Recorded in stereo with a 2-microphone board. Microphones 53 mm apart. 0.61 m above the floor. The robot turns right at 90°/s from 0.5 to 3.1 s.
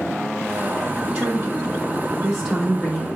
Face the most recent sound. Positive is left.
turn(degrees=25)